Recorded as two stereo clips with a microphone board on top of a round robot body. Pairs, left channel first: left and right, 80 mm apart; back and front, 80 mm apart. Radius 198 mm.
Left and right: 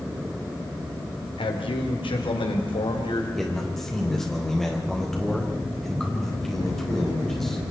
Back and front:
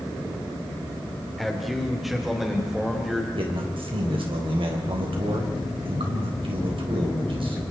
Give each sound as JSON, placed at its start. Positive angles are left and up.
{"t": 1.4, "sound": "a man speaking", "azimuth_deg": 90, "distance_m": 2.5}
{"t": 3.4, "sound": "a man speaking", "azimuth_deg": 5, "distance_m": 4.0}